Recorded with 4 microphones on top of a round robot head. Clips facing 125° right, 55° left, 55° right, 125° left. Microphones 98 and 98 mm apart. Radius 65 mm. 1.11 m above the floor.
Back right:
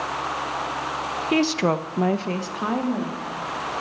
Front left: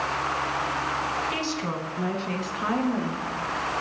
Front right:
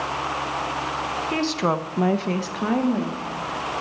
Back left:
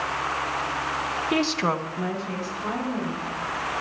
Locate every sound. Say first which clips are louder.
1.3 s a woman speaking: back right 8 dB, front right 1 dB; 160° right, 1.0 m; by 3.2 s 50° right, 2.0 m